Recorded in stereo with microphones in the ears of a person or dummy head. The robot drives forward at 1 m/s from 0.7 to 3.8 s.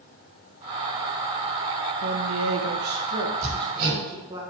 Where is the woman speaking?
50° right (ahead or behind), 0.9 m; by 4.4 s 25° right (ahead or behind), 1.5 m.